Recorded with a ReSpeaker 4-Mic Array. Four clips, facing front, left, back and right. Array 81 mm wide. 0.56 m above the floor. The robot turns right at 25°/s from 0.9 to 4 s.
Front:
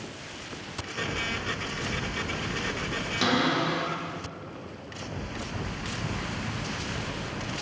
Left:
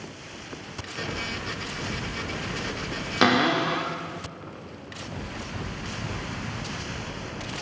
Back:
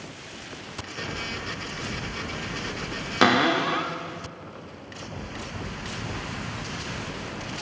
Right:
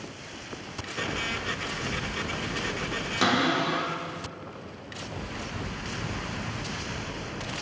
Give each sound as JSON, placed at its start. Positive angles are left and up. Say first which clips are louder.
{"t": 3.2, "sound": "a cupboard door", "louder": "left 4 dB, back 5 dB", "azimuth_deg": 150, "distance_m": 0.8}